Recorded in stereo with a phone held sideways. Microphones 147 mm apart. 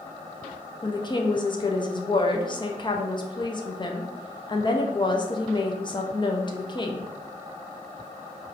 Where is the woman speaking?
30° left (ahead or behind), 0.6 m.